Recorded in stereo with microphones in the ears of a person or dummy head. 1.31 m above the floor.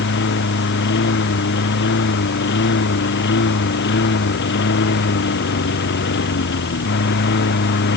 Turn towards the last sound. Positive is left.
turn(degrees=55)  # may be behind; listen again after turning